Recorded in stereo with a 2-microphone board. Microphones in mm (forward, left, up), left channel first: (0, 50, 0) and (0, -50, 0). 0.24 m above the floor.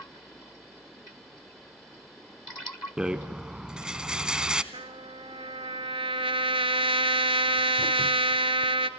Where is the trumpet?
70° right (ahead or behind), 1.0 m.